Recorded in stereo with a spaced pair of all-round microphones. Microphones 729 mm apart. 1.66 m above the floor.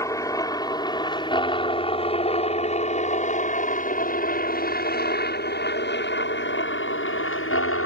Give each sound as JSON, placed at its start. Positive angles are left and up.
{"t": 0.0, "sound": "a helicopter", "side_deg": 5}